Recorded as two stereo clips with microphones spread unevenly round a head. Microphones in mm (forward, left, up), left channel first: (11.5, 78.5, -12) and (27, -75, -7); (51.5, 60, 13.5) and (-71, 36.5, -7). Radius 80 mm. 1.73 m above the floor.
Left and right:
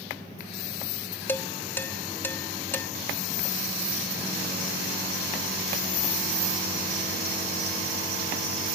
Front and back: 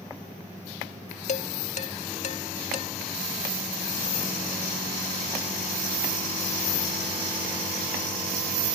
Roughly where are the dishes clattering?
Ahead.